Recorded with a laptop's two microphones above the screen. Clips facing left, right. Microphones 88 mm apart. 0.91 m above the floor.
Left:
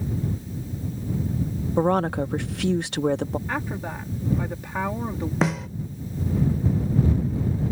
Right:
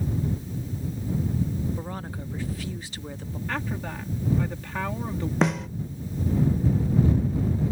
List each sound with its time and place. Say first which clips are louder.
1.8 s a woman speaking: left 14 dB; 75° left (ahead or behind)
3.5 s a woman speaking: left 2 dB; 15° left (ahead or behind)
5.4 s a snare drum: even; centre (ahead or behind)